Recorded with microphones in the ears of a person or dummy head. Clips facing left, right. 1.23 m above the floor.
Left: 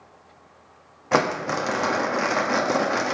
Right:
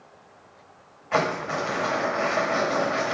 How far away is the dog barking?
I don't hear a dog barking.